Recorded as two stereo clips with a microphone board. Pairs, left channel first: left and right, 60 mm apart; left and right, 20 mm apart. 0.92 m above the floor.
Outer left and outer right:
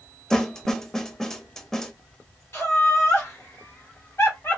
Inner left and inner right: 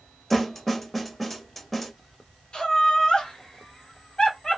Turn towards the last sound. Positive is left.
turn(degrees=50)  # may be behind; listen again after turning